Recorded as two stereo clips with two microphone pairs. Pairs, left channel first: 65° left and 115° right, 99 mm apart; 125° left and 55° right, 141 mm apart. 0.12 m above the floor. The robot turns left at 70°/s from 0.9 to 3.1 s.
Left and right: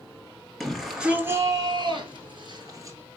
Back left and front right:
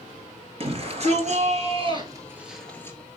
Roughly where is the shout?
Ahead right.